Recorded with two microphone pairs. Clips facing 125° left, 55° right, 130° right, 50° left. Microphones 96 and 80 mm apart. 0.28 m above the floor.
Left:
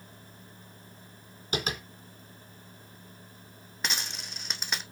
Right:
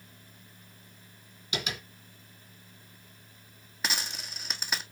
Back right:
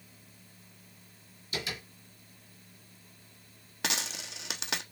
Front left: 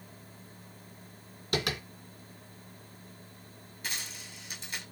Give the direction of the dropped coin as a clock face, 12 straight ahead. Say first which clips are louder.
Even, back right 6 dB; 5 o'clock.